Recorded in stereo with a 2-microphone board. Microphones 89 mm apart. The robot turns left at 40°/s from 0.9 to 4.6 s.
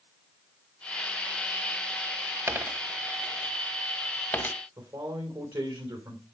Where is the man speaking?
65° right (ahead or behind), 3 m.